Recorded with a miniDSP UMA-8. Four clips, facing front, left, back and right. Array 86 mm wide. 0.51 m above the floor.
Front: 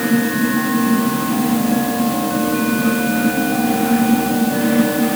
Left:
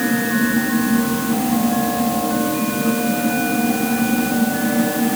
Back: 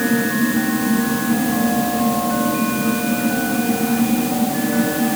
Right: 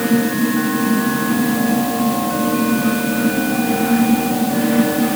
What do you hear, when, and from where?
Only background noise.